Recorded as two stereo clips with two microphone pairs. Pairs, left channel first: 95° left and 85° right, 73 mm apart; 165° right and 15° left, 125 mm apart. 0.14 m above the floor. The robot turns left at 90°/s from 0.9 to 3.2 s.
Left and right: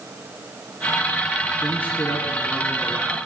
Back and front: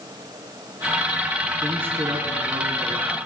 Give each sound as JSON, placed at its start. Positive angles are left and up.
{"t": 1.6, "sound": "a man speaking", "azimuth_deg": 85, "distance_m": 1.1}